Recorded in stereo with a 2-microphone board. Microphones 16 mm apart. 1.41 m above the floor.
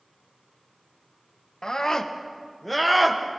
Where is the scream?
65° left (ahead or behind), 2.0 m; by 3.2 s 10° right (ahead or behind), 2 m.